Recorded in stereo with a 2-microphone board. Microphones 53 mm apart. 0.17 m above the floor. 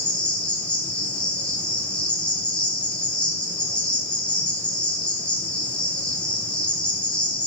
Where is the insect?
20° left (ahead or behind), 1.1 m.